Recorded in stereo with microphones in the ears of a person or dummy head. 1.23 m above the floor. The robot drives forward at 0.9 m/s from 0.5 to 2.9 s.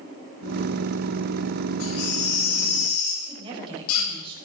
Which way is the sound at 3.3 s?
30° right (ahead or behind).